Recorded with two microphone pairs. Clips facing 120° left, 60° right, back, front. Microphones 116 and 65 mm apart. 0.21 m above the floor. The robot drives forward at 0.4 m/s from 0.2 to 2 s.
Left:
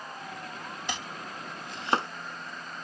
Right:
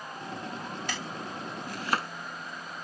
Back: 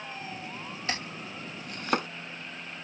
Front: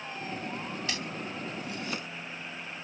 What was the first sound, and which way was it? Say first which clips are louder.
Chopping: right 1 dB, even; 175° left.